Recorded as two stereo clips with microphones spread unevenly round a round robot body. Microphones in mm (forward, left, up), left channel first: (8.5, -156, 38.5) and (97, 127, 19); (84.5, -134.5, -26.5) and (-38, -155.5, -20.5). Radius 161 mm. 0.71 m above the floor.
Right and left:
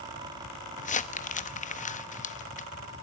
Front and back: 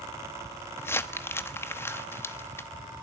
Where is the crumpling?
50° right, 1.1 m.